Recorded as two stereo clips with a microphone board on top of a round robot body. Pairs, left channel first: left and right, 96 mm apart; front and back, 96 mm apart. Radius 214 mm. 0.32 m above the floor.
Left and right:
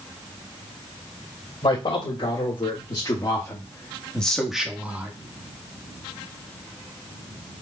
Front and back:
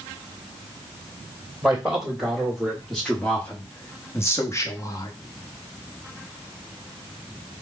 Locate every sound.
1.6 s a man speaking: 95° left, 1.9 m; by 5.1 s 30° right, 1.3 m